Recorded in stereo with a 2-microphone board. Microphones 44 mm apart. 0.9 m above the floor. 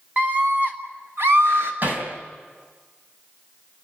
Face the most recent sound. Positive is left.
turn(degrees=-45)  # may be behind; listen again after turning